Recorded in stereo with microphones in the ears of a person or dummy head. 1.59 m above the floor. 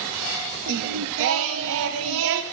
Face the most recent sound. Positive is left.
turn(degrees=-65)  # may be behind; listen again after turning